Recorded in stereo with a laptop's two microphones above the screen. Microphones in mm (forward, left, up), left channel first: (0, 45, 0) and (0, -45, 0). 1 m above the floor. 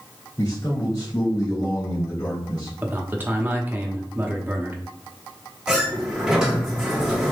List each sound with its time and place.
0.4 s a man speaking: 45° left (ahead or behind), 2 m
2.8 s a man speaking: 20° right (ahead or behind), 1.0 m
5.7 s a sliding door: 5° right (ahead or behind), 1.5 m